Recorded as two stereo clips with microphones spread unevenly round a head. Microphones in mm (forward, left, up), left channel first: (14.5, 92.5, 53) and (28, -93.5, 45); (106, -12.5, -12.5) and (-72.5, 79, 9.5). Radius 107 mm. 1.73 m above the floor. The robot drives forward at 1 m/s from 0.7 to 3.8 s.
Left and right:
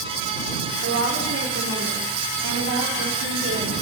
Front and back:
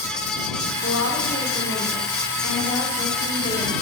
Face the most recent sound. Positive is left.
turn(degrees=-90)